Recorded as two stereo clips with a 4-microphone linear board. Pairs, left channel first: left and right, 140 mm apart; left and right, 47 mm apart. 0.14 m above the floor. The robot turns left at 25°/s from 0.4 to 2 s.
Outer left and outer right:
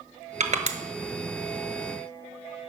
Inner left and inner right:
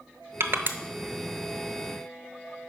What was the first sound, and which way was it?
Crushing, 60° right (ahead or behind).